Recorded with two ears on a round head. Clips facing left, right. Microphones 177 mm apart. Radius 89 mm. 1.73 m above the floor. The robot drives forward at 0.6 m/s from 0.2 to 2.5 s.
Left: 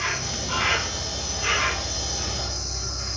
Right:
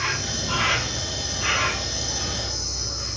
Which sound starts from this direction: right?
An insect, at 0.0 s.